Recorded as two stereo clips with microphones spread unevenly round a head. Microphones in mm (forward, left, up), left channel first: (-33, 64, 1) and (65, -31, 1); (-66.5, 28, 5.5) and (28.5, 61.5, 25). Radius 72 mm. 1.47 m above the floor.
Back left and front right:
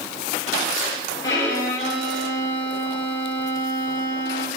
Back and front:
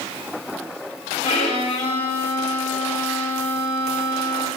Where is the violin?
155° right, 3.5 m.